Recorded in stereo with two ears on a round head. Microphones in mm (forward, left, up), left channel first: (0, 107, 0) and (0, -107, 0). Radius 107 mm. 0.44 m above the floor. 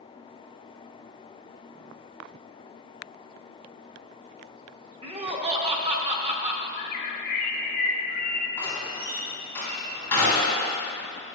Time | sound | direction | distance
5.0 | laughter | 25° right (ahead or behind) | 0.8 m
6.8 | a bird | 35° left (ahead or behind) | 0.7 m
8.6 | a door slam | 10° left (ahead or behind) | 2.5 m